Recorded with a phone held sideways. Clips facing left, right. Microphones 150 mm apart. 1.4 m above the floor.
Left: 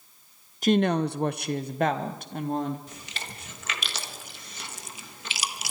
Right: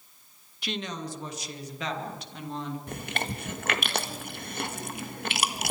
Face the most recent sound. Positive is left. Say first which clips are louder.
# right 9 dB
turn(degrees=-65)  # may be behind; listen again after turning